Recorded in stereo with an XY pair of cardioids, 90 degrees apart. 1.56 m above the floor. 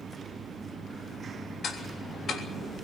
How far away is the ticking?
About 3 m.